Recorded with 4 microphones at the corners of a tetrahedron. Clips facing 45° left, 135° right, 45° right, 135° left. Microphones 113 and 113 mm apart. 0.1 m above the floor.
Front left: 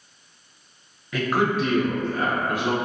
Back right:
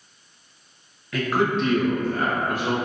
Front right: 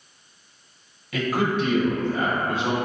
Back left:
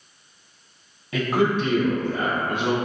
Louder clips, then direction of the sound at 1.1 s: Even, back left 2 dB; 105° left.